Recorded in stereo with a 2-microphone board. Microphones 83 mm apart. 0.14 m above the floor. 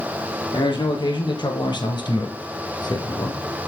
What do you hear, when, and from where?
0.5 s a man speaking: 70° left (ahead or behind), 4 m; by 3.4 s 55° left (ahead or behind), 2.5 m